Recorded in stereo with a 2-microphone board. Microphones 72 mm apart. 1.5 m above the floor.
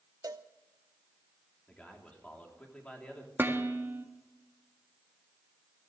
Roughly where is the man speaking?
Centre.